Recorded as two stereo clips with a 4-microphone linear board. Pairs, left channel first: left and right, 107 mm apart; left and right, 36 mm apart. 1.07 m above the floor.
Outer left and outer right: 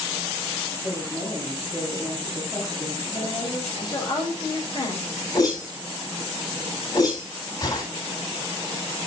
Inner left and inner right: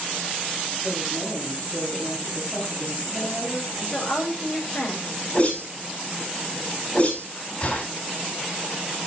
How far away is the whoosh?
About 9 m.